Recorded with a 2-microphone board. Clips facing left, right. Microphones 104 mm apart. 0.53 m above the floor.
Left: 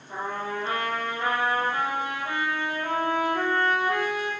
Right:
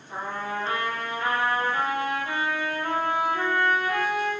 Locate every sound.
0.1 s a trumpet: 25° left (ahead or behind), 6.5 m